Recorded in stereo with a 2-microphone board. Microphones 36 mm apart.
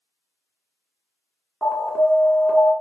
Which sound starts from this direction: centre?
An alarm, at 1.6 s.